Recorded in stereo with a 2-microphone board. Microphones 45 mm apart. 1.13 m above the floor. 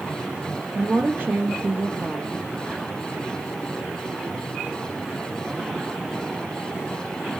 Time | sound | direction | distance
0.8 | a woman speaking | 40° right (ahead or behind) | 0.7 m